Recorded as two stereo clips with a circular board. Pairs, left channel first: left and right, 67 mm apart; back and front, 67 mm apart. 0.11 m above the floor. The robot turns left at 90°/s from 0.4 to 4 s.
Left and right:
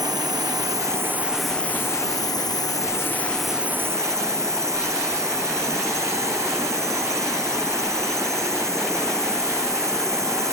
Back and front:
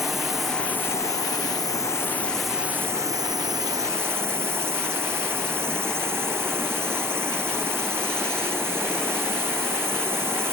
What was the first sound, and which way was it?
A drone, 90° right.